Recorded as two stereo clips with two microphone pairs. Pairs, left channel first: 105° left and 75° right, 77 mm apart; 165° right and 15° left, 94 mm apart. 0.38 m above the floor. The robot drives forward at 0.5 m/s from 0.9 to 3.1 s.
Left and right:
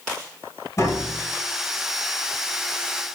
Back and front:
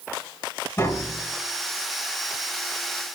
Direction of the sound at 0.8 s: 135° left.